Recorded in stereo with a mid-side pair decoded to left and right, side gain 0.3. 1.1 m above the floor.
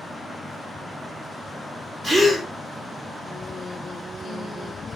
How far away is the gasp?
About 2.5 m.